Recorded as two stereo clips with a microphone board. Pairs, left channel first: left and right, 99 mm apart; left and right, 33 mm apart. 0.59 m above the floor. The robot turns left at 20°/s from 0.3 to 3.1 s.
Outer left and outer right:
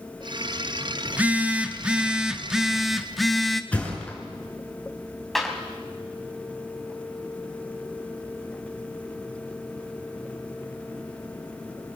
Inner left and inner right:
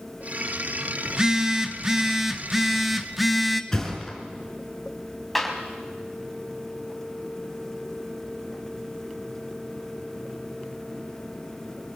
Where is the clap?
Centre (ahead or behind), 3 m.